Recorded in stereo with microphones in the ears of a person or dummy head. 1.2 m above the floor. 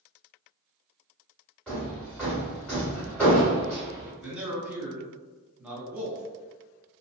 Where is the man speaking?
5° right (ahead or behind), 0.8 m.